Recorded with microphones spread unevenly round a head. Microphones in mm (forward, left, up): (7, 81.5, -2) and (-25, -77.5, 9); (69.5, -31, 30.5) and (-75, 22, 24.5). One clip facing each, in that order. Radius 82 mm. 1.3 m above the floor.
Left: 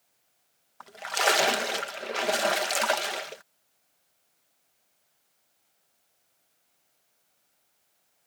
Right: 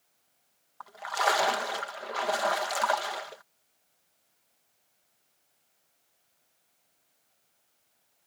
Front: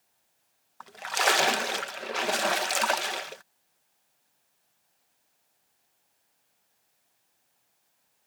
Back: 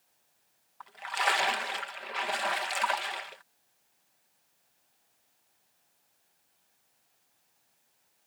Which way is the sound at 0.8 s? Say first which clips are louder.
Left 1 dB, front 4 dB; 20° left.